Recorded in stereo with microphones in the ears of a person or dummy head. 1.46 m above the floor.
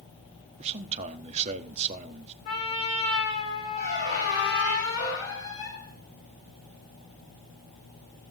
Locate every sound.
0.6 s a man speaking: 35° right (ahead or behind), 1.2 m
2.5 s a trumpet: 35° left (ahead or behind), 3 m
3.8 s a squeak: 60° left (ahead or behind), 6 m